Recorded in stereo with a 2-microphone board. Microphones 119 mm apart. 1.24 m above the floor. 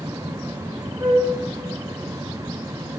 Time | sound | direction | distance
1.0 | a flute | 30° right (ahead or behind) | 0.7 m